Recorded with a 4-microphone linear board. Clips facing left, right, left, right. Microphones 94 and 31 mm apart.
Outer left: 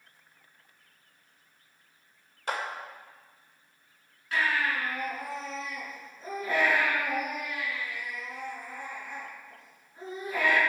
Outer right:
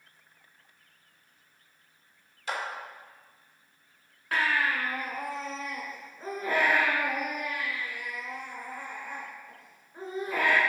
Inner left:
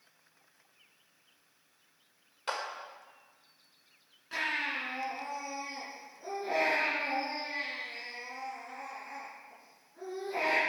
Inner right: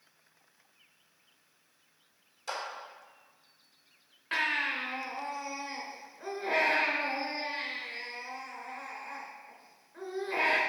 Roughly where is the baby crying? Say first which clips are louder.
Outer right 1 dB, inner right 3 dB; right.